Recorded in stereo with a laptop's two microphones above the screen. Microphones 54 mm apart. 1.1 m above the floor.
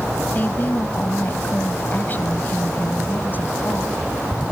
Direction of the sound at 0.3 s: 35° left (ahead or behind).